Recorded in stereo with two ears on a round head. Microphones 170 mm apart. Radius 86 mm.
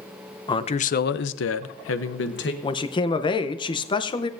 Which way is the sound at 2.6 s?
25° left (ahead or behind).